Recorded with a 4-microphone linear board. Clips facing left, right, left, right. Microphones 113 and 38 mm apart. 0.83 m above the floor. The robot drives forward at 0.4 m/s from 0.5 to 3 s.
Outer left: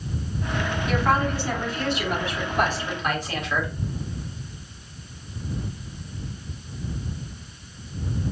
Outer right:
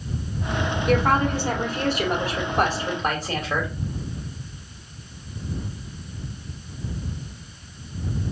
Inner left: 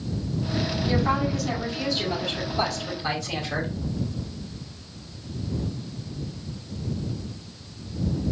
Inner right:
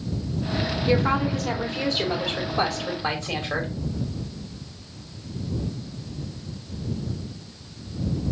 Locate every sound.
0.9 s a woman speaking: 50° right (ahead or behind), 2 m; by 3.7 s 40° right (ahead or behind), 2.5 m